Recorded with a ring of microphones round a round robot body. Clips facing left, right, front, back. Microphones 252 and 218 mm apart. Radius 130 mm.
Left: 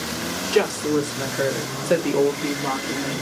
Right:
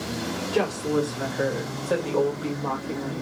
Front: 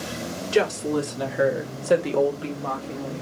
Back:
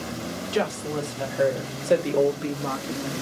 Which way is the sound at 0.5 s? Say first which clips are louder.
Left 4 dB, front 5 dB; 50° left.